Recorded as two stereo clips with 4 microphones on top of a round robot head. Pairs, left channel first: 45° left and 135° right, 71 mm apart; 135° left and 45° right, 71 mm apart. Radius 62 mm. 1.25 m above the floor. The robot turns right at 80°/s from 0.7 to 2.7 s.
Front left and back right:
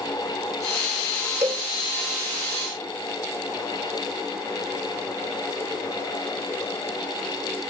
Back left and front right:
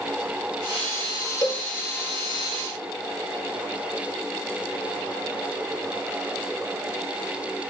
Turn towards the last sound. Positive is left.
turn(degrees=-85)